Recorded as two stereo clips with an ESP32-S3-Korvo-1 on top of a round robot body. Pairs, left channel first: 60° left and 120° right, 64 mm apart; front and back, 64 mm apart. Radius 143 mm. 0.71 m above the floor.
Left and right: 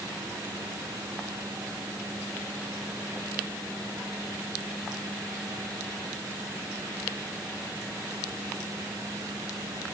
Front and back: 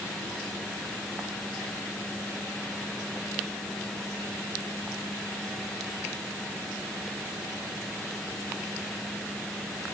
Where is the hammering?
I don't hear hammering.